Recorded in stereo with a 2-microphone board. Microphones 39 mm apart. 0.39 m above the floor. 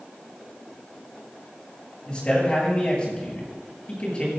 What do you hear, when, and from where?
2.1 s a man speaking: 25° left (ahead or behind), 7.5 m